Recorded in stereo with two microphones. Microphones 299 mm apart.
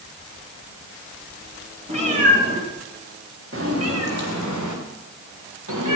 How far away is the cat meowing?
About 6 m.